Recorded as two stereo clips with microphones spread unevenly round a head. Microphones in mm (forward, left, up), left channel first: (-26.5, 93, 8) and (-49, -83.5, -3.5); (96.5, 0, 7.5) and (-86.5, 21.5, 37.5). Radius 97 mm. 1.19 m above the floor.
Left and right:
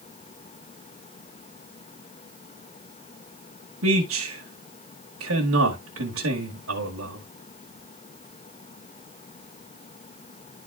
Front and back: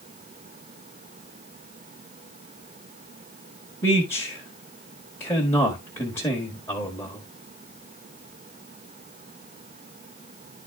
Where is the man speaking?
85° right, 1.6 m.